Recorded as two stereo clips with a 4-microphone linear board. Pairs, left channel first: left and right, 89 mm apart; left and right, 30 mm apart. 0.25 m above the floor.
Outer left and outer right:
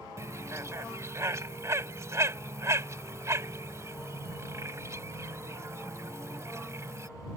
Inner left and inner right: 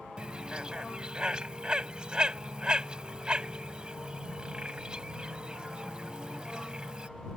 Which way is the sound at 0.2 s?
35° right (ahead or behind).